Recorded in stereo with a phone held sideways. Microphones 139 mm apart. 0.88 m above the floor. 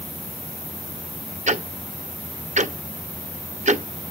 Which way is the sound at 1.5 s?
60° right (ahead or behind).